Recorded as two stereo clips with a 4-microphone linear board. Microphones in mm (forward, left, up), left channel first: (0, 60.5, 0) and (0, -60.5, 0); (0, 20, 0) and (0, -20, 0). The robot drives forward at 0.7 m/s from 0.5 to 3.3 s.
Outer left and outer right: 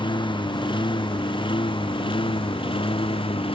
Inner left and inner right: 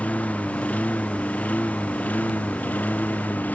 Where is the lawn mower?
40° left (ahead or behind); by 3.5 s 45° left (ahead or behind).